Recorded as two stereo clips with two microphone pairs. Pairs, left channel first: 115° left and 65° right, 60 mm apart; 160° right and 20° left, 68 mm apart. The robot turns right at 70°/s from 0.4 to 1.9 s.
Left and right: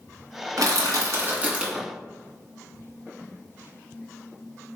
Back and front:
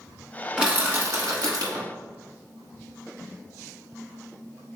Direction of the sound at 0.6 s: 65° right.